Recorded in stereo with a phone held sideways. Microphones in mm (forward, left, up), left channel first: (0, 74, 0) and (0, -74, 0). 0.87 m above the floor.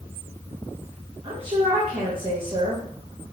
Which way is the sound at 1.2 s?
35° right (ahead or behind).